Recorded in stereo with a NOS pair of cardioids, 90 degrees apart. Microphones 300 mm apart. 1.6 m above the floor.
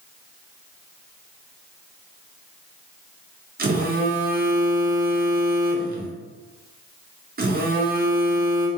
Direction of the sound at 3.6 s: 30° right.